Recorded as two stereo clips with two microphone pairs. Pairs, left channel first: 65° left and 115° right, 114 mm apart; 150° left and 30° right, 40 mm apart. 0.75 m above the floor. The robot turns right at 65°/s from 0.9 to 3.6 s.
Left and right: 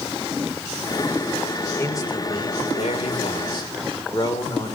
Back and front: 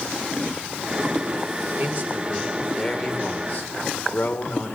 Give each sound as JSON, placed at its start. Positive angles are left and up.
{"t": 1.8, "sound": "a man speaking", "azimuth_deg": 0, "distance_m": 3.0}